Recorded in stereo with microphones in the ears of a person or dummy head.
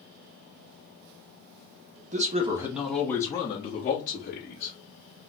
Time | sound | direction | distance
2.1 | a man speaking | 35° right (ahead or behind) | 0.9 m